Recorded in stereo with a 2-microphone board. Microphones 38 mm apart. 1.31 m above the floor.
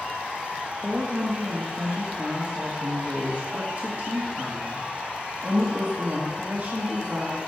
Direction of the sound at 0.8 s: 50° right (ahead or behind).